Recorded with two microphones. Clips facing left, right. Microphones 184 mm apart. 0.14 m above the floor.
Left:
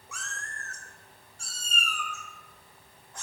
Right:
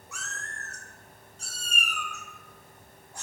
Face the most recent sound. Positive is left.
turn(degrees=-10)  # may be behind; listen again after turning